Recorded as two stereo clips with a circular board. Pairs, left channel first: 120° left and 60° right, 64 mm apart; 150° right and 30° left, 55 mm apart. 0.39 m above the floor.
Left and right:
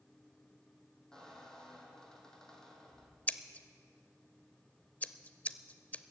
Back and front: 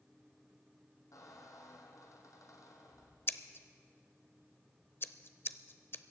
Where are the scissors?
Straight behind, 0.5 m.